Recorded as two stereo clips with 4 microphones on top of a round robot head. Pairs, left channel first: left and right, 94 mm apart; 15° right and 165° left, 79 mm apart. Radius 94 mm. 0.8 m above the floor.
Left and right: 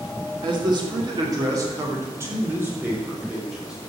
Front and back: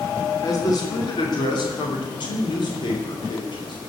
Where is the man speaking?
55° right, 3 m; by 3.8 s 5° right, 3.5 m.